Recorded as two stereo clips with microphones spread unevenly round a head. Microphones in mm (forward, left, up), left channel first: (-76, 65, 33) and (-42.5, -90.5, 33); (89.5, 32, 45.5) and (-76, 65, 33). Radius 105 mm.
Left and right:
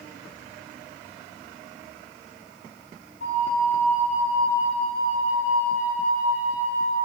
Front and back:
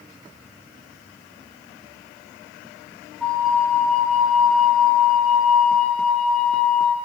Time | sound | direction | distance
3.2 | a flute | 80° left | 2.5 m